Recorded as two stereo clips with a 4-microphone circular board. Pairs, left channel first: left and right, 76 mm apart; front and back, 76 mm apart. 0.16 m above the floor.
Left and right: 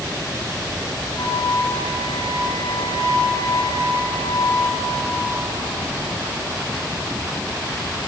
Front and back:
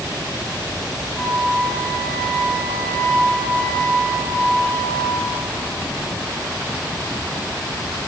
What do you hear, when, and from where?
1.2 s a flute: 75° left, 7 m